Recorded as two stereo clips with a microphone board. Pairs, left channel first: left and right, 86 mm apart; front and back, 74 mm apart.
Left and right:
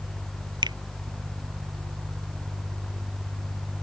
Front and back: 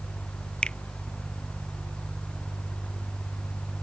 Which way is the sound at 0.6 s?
75° right.